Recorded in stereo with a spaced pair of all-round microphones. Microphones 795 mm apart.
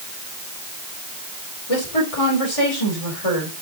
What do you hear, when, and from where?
1.7 s a woman speaking: 45° left (ahead or behind), 4 m